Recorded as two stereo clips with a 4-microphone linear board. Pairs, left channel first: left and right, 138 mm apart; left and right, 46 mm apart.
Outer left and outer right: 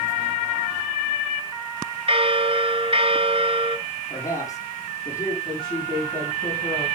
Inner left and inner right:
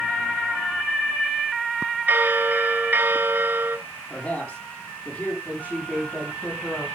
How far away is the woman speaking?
About 6 m.